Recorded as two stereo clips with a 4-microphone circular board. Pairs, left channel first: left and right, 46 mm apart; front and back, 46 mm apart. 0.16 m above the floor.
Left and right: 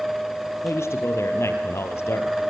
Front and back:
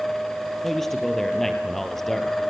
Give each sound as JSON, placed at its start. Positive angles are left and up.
{"t": 0.6, "sound": "a man speaking", "azimuth_deg": 85, "distance_m": 4.0}